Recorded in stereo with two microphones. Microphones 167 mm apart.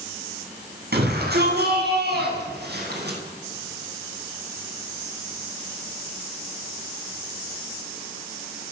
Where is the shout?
75° right (ahead or behind), 9.5 m; by 3.2 s 85° right, 9 m.